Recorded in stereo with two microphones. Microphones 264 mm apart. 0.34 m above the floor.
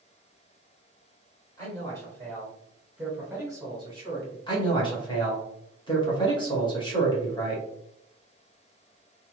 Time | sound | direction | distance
1.6 | a man speaking | 15° left (ahead or behind) | 1.8 m
4.5 | a man speaking | 20° left (ahead or behind) | 1.1 m